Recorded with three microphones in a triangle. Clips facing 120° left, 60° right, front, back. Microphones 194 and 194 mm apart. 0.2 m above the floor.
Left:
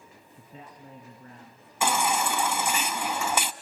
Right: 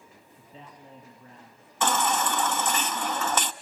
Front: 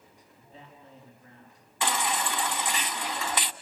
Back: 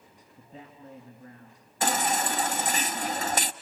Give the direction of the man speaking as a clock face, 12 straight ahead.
7 o'clock.